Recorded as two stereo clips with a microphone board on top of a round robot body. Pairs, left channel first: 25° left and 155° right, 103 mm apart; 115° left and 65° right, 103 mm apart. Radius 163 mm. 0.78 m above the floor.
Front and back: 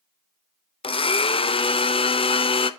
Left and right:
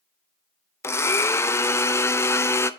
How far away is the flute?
No flute in this recording.